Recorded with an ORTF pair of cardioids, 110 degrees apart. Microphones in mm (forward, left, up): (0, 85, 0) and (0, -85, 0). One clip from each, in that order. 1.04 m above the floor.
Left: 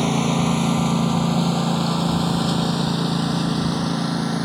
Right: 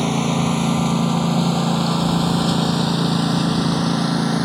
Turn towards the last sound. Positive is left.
turn(degrees=-20)